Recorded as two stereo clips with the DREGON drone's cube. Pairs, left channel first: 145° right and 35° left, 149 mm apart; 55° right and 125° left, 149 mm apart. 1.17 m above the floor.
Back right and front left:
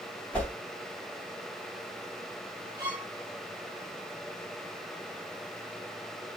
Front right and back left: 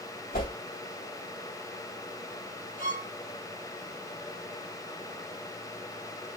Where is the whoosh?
65° right, 2.5 m.